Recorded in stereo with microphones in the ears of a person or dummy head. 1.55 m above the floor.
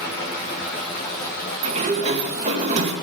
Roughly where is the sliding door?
Right.